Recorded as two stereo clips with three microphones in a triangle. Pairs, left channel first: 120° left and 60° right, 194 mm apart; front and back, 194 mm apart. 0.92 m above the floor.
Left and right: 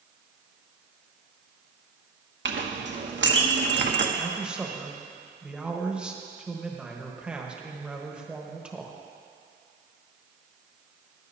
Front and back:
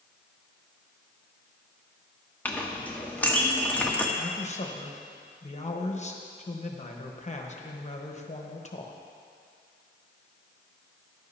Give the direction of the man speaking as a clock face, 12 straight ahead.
11 o'clock.